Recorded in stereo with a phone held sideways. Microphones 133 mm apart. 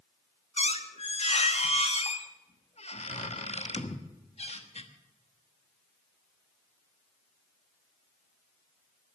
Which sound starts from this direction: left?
A squeak, at 0.6 s.